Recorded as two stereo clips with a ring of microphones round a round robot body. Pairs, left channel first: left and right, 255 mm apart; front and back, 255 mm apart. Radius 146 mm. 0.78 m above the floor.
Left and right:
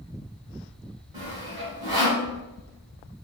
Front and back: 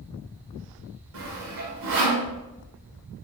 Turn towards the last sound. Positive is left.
turn(degrees=-170)